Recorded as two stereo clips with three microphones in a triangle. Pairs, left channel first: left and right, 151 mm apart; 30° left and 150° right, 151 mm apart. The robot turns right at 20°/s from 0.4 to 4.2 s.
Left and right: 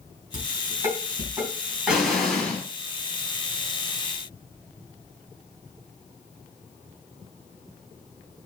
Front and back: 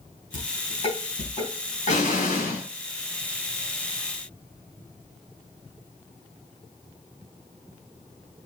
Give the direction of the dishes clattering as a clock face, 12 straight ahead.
1 o'clock.